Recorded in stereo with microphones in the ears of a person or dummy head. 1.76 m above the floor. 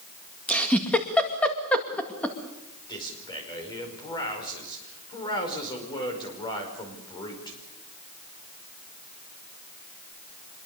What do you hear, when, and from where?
0.5 s a giggle: 10° left (ahead or behind), 2 m
2.9 s a man speaking: 25° left (ahead or behind), 5.5 m